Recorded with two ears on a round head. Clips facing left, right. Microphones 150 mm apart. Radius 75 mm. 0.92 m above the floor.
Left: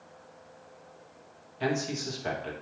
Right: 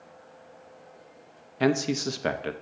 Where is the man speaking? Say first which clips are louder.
Right 6 dB; 65° right (ahead or behind), 0.6 m.